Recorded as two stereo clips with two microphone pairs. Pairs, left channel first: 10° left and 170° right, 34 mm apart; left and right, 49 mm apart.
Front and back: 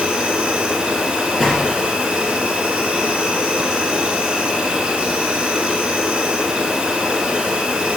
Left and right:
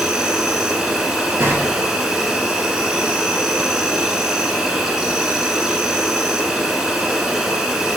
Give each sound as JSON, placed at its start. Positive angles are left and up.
{"t": 0.0, "sound": "an insect", "azimuth_deg": -150, "distance_m": 0.9}
{"t": 1.4, "sound": "a gunshot", "azimuth_deg": -75, "distance_m": 1.6}